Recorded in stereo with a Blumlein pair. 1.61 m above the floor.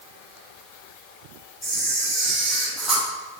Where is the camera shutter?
5° left, 1.0 m.